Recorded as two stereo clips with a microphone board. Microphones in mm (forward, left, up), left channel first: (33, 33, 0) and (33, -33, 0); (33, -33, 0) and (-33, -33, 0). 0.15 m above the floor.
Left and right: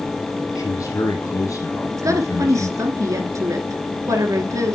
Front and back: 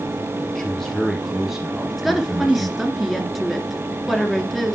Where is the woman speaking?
90° right, 1.9 m.